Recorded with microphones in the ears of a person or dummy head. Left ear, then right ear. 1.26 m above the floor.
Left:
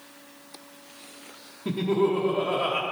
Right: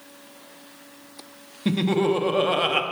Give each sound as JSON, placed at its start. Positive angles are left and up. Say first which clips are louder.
{"t": 1.6, "sound": "laughter", "louder": "right 2 dB", "side_deg": -50, "distance_m": 0.8}